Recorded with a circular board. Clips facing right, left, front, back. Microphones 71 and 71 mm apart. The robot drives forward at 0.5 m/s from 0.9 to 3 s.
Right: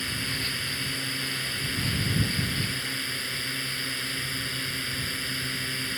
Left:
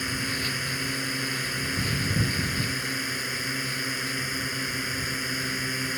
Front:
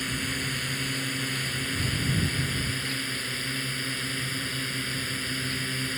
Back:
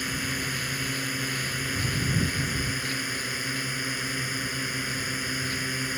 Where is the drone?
120° left; by 6.0 s 130° left.